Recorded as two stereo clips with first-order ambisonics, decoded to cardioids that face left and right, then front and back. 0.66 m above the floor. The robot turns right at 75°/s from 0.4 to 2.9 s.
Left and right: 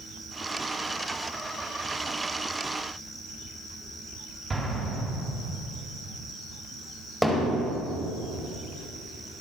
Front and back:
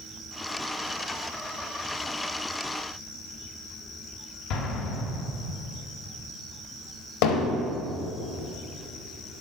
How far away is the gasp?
I don't hear a gasp.